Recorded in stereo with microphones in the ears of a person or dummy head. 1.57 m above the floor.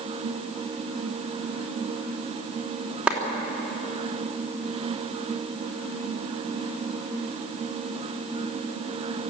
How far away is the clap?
About 3.5 m.